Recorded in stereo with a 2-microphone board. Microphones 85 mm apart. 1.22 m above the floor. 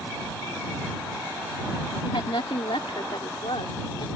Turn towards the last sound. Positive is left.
turn(degrees=85)